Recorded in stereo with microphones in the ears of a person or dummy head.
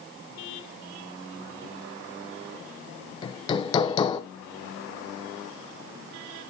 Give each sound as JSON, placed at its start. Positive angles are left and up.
{"t": 3.2, "sound": "hammering", "side_deg": 30, "distance_m": 0.9}